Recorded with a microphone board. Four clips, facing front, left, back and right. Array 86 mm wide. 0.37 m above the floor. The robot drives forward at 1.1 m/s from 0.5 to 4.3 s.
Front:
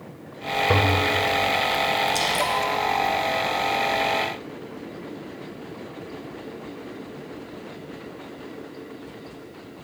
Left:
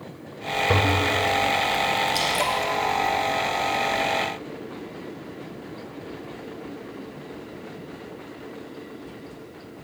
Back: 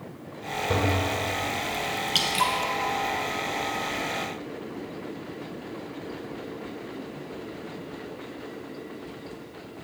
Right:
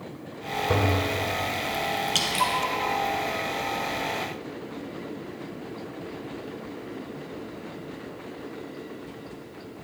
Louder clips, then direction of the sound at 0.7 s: Left 2 dB, front 5 dB; 30° left.